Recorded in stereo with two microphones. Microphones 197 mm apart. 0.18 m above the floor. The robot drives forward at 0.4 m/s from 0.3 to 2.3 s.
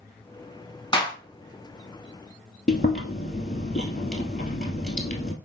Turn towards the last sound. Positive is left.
turn(degrees=50)  # may be behind; listen again after turning